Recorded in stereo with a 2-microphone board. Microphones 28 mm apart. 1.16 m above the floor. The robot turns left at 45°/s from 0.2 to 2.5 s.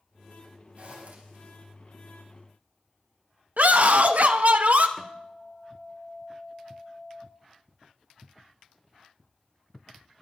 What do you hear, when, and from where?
0.8 s a zipper: 55° right (ahead or behind), 4.5 m; by 1.4 s 80° right, 4.5 m
3.6 s a scream: 70° right (ahead or behind), 1.3 m
5.0 s a guitar: 15° left (ahead or behind), 1.5 m